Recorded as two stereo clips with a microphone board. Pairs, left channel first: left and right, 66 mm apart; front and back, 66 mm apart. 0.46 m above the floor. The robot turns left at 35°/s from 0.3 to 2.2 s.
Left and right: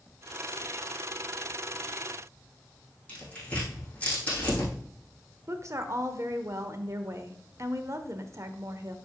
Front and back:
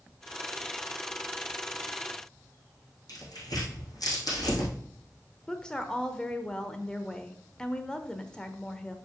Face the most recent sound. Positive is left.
turn(degrees=-75)